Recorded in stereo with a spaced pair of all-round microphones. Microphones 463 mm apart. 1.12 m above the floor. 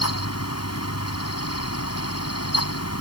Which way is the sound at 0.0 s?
30° left (ahead or behind).